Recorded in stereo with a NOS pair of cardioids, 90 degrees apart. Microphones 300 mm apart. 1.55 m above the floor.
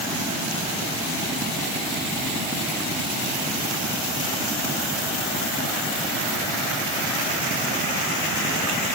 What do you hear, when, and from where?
Only background noise.